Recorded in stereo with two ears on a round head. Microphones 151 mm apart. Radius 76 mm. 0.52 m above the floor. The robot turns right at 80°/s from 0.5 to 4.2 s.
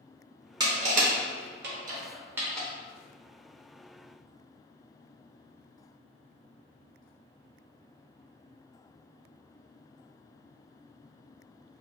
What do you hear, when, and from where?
0.6 s crushing: 25° right (ahead or behind), 0.6 m; by 2.7 s 10° left (ahead or behind), 0.6 m